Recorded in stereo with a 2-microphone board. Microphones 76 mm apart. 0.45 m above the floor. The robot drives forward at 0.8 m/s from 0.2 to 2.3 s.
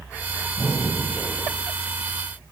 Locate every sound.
0.6 s breathing: 25° left (ahead or behind), 2.5 m; by 1.5 s 20° left (ahead or behind), 3.5 m